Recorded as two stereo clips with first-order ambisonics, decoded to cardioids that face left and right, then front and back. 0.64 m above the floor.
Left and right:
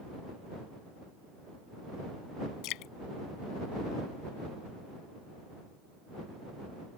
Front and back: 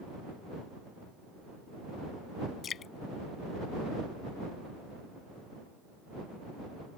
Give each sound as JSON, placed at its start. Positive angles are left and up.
{"t": 2.6, "sound": "dripping", "azimuth_deg": 60}